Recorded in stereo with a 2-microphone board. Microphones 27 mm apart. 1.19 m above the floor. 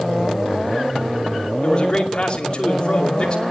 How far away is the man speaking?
About 2.5 m.